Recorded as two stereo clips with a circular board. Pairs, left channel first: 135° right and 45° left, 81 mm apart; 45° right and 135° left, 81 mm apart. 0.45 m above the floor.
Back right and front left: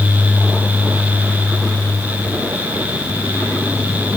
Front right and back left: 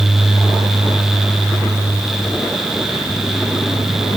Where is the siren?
I don't hear a siren.